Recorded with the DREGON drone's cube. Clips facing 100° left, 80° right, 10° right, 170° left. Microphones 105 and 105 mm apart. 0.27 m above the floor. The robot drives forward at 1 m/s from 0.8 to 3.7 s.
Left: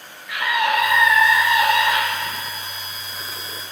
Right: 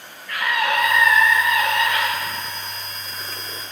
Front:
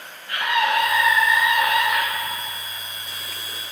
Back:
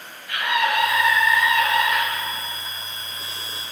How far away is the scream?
About 2.0 m.